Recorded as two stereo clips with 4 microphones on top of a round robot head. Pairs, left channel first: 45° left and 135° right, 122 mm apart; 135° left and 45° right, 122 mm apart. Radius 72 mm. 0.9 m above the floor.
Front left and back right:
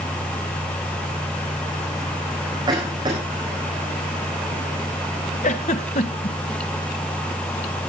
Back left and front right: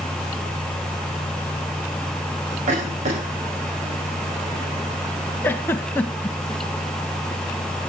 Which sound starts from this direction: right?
A cough, at 2.7 s.